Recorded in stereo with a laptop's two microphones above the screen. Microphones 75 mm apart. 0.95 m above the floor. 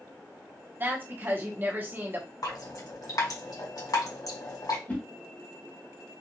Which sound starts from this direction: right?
A woman speaking, at 0.8 s.